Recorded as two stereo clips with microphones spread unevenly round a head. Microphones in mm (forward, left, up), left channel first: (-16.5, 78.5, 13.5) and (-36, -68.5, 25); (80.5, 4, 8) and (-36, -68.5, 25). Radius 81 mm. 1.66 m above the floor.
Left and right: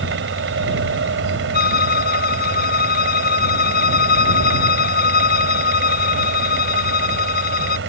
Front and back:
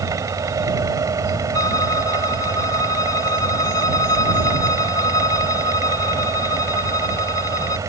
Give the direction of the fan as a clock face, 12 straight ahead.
3 o'clock.